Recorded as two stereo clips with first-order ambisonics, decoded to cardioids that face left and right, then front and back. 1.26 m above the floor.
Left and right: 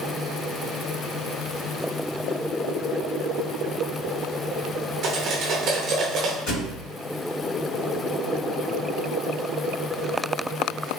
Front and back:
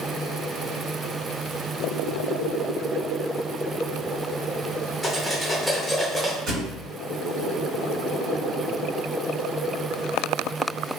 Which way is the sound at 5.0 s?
90° right.